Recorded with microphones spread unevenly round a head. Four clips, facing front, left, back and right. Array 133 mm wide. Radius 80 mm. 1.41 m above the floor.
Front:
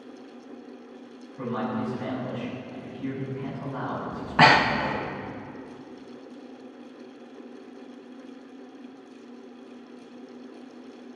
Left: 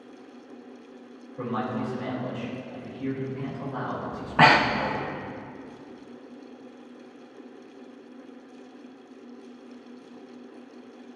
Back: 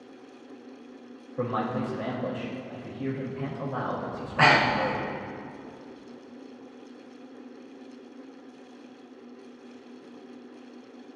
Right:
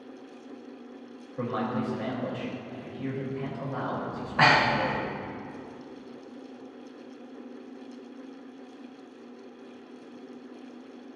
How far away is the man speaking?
About 3.5 m.